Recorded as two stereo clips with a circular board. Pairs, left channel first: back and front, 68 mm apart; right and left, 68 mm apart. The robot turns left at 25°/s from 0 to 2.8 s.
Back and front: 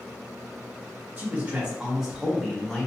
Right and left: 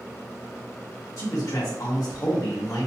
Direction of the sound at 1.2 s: 60° right.